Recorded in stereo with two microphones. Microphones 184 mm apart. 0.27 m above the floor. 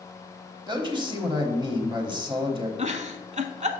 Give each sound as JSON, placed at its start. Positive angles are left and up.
{"t": 0.7, "sound": "a man speaking", "side_deg": -25, "distance_m": 1.2}
{"t": 2.8, "sound": "a giggle", "side_deg": -40, "distance_m": 0.6}